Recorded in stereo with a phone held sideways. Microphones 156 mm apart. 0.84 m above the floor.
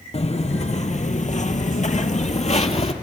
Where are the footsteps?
45° left (ahead or behind), 1.6 m; by 2.9 s 40° left (ahead or behind), 1.3 m.